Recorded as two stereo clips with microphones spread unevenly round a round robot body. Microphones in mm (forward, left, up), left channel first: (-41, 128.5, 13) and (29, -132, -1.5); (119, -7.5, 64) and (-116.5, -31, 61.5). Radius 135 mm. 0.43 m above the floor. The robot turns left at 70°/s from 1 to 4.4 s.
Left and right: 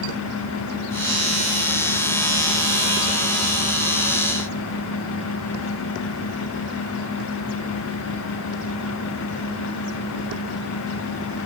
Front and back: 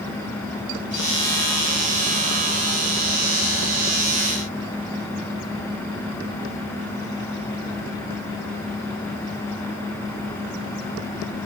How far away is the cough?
No cough in this recording.